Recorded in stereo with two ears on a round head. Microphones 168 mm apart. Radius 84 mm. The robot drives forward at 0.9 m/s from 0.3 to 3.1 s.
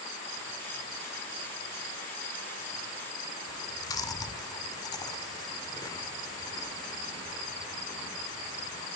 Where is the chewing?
20° left (ahead or behind), 1.3 m.